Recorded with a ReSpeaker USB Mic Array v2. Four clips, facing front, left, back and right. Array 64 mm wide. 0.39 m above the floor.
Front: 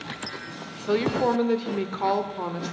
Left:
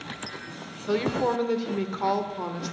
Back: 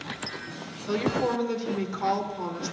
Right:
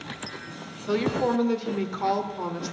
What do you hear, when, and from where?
0.9 s a woman speaking: 10° left, 1.1 m